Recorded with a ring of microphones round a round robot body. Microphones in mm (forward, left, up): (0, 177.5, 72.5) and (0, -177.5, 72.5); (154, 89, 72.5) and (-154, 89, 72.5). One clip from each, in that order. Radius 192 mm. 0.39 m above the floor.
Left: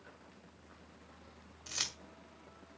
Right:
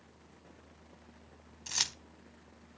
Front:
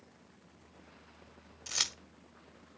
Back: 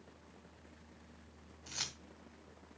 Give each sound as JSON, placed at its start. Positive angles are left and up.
{"t": 1.7, "sound": "keys jangling", "azimuth_deg": -20, "distance_m": 1.2}